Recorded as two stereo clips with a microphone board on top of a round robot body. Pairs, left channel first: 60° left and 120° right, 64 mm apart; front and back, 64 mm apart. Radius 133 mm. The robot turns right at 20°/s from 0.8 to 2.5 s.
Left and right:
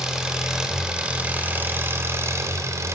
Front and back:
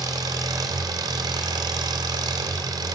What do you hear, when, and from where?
0.0 s an engine running: 160° left, 2 m; by 3.0 s 165° right, 2 m